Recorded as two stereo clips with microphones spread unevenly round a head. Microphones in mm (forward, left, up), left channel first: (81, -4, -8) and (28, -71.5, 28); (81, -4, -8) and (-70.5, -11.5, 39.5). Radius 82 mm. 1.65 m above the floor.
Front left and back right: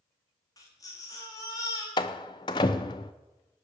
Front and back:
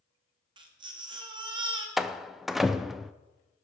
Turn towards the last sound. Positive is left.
turn(degrees=115)